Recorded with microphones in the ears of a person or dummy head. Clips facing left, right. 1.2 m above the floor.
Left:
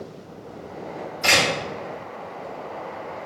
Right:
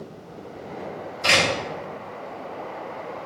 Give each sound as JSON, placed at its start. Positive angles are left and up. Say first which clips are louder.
{"t": 1.2, "sound": "a door slam", "louder": "even", "side_deg": 55, "distance_m": 1.5}